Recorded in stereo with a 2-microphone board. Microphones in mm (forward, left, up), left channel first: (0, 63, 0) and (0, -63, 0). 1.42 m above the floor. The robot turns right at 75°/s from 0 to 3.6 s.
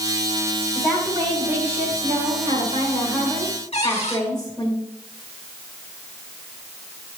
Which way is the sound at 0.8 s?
165° left.